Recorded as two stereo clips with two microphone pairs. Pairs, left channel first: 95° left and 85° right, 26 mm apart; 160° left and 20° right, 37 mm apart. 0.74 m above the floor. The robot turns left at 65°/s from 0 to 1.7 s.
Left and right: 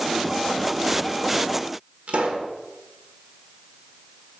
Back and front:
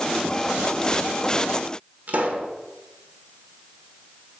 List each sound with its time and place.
2.1 s a pop: 60° right, 1.0 m